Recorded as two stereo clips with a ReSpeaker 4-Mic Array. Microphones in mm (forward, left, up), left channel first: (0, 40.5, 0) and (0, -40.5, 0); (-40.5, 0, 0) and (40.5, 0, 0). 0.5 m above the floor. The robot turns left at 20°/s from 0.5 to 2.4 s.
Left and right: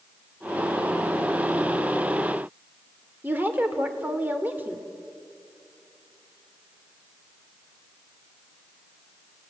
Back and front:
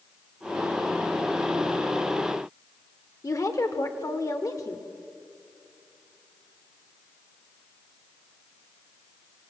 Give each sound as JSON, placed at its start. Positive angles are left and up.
{"t": 3.2, "sound": "a woman speaking", "azimuth_deg": -150, "distance_m": 1.5}